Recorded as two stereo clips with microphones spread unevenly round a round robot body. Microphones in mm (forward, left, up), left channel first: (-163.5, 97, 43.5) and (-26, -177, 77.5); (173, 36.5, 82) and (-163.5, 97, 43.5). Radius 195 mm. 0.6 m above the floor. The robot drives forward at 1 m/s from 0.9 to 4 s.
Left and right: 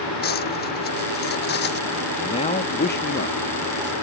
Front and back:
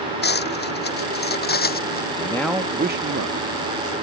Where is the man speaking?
60° left; by 3.9 s 165° left.